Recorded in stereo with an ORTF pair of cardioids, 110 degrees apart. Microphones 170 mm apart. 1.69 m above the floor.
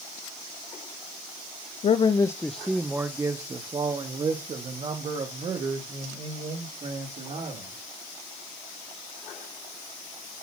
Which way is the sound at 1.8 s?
40° left.